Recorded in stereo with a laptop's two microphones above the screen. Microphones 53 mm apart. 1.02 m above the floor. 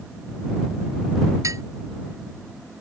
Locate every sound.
1.4 s dishes clattering: 90° right